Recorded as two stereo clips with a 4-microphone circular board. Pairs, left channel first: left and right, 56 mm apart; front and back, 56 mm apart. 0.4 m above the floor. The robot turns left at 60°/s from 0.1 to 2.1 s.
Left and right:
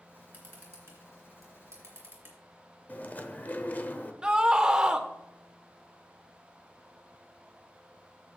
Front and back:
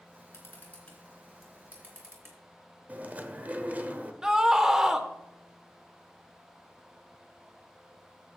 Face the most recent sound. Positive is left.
turn(degrees=-125)